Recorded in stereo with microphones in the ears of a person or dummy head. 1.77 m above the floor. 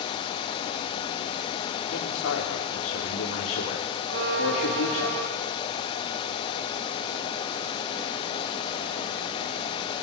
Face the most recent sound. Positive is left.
turn(degrees=-65)  # may be behind; listen again after turning